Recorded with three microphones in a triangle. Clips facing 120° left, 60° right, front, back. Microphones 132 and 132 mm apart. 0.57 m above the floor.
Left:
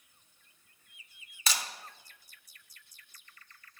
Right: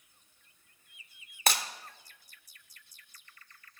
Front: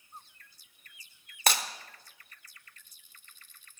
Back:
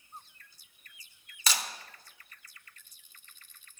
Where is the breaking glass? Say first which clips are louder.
Right 5 dB, front 5 dB; 30° right, 1.0 m.